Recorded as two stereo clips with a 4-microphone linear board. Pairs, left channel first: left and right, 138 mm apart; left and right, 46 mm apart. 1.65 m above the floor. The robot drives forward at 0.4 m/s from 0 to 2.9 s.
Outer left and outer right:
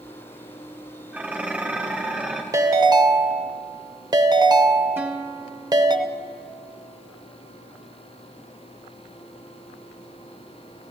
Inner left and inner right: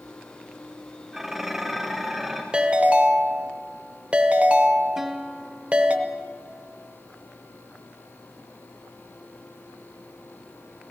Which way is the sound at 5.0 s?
15° right (ahead or behind).